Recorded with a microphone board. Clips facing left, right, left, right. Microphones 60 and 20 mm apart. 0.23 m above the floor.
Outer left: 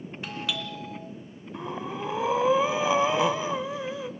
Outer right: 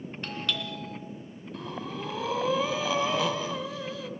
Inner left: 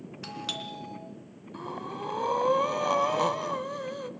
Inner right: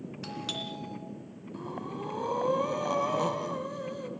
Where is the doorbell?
5° left (ahead or behind), 2.5 m.